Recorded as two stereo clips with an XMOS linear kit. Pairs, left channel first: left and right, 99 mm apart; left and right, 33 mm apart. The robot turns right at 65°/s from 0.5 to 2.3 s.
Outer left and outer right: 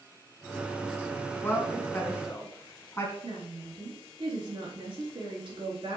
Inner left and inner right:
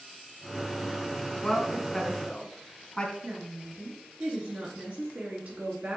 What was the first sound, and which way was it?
A woman speaking, 20° left (ahead or behind).